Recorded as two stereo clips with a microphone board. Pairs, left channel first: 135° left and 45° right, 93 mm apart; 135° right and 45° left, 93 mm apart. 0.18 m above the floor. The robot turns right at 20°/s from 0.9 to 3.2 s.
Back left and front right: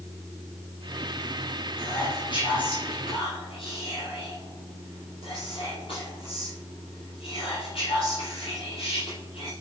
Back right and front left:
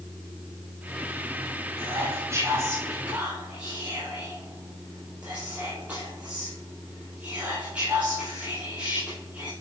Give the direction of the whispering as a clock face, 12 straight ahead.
9 o'clock.